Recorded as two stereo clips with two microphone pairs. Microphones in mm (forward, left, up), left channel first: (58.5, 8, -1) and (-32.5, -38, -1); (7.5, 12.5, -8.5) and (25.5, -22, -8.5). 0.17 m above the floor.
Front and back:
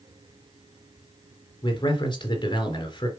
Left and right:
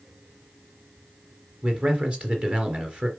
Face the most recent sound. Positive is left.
turn(degrees=-10)